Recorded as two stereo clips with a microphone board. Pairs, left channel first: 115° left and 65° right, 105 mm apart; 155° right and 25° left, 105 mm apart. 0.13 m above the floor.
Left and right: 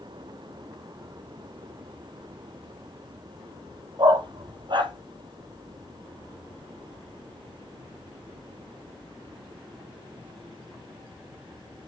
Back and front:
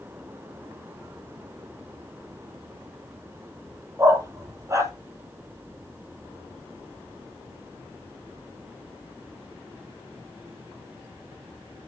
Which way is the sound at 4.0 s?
35° right.